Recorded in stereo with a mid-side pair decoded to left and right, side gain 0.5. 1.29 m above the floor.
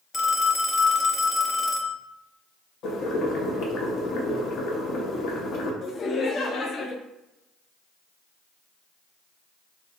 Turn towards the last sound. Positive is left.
turn(degrees=45)